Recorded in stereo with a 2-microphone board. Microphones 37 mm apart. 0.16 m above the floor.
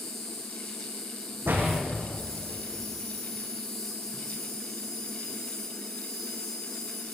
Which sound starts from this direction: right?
A door slam, at 1.4 s.